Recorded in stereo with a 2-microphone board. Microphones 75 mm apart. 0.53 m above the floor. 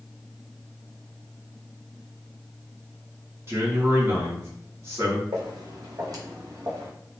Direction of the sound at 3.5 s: 35° right (ahead or behind).